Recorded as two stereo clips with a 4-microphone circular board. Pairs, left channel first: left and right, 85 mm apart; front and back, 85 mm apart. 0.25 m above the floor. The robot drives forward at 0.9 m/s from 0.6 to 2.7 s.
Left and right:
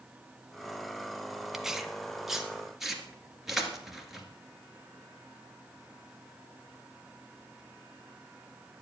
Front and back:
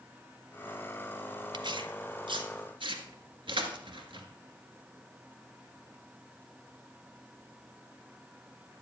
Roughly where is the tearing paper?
Behind.